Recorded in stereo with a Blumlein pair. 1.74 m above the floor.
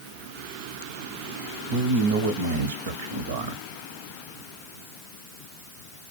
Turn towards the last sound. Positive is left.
turn(degrees=-55)